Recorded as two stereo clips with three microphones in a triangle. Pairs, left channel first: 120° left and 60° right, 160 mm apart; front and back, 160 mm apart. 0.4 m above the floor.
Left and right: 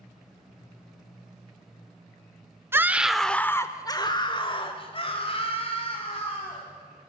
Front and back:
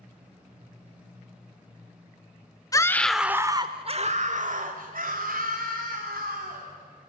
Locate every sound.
2.7 s a scream: 10° right, 0.8 m; by 6.7 s 170° left, 3 m